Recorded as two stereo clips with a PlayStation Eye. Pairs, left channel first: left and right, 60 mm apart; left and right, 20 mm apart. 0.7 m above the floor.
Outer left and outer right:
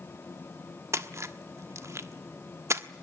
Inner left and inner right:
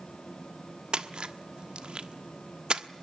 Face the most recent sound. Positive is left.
turn(degrees=-55)  # may be behind; listen again after turning